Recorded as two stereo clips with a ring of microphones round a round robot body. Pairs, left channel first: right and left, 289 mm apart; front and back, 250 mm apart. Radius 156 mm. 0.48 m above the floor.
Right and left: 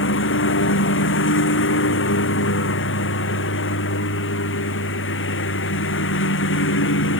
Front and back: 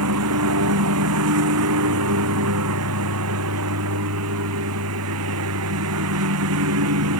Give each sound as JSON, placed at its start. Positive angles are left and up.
{"t": 0.0, "sound": "a lawn mower", "azimuth_deg": -140}